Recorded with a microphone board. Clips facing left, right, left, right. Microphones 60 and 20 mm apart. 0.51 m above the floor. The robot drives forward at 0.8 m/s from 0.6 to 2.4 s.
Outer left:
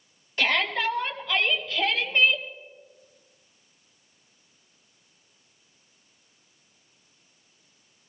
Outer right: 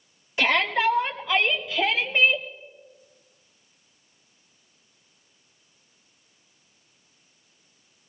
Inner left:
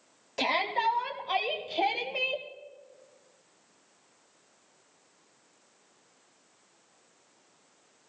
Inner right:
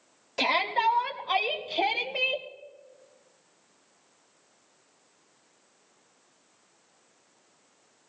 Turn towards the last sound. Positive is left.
turn(degrees=-15)  # may be behind; listen again after turning